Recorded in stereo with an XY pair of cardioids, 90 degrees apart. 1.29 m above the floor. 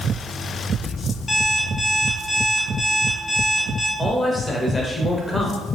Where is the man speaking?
20° left, 0.8 m.